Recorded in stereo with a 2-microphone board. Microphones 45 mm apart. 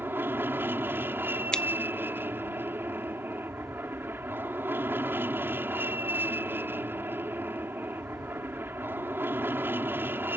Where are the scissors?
20° left (ahead or behind).